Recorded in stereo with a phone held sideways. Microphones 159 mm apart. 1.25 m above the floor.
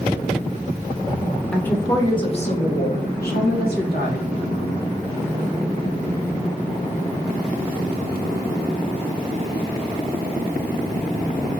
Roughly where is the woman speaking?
Centre.